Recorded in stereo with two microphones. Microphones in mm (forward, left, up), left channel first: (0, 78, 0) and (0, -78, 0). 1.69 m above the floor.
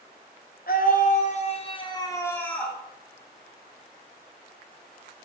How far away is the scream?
About 1.3 m.